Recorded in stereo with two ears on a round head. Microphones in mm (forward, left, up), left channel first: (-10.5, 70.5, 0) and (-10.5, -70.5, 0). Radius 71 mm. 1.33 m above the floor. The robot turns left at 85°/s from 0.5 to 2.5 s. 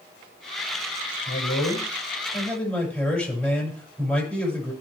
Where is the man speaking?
115° left, 6 m; by 4.7 s 10° left, 6 m.